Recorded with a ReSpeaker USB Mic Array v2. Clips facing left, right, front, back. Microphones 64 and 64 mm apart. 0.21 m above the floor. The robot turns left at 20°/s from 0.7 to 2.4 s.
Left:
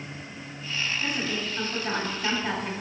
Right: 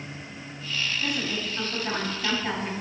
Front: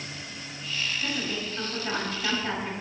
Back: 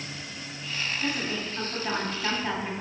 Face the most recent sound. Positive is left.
turn(degrees=175)